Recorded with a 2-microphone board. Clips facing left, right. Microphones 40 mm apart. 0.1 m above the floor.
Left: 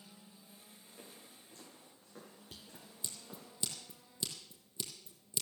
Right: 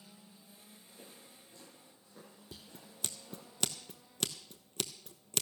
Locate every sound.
0.9 s footsteps: 50° left (ahead or behind), 9.5 m; by 3.5 s 60° left (ahead or behind), 9.5 m
2.5 s scissors: 70° right (ahead or behind), 0.8 m